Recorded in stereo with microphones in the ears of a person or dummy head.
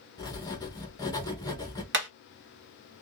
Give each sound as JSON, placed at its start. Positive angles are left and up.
{"t": 0.2, "sound": "writing", "side_deg": 20, "distance_m": 0.9}
{"t": 1.9, "sound": "hammering", "side_deg": -65, "distance_m": 1.0}